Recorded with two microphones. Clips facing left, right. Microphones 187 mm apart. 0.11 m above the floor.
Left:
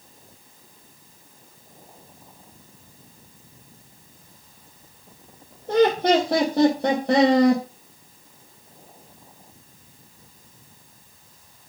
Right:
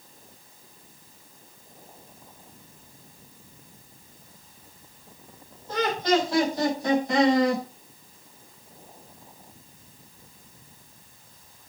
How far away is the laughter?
About 4.5 m.